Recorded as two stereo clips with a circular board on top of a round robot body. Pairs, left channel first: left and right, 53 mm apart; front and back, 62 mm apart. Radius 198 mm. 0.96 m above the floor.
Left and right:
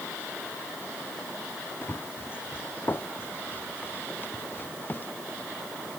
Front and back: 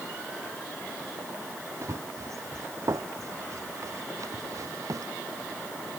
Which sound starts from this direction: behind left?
Running footsteps, at 1.8 s.